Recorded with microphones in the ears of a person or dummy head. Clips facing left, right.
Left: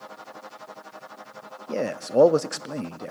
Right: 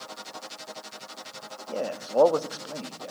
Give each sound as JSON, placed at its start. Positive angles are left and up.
{"t": 1.7, "sound": "a man speaking", "side_deg": 25, "distance_m": 0.7}